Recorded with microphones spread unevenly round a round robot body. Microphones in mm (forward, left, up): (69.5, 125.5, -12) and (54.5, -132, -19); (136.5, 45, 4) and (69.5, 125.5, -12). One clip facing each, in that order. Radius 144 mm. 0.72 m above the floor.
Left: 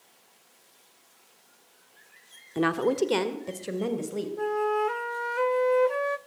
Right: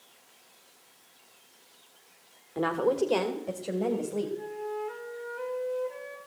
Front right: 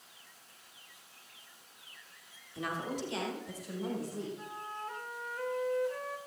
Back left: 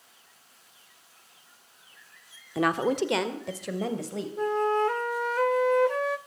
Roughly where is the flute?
Behind left.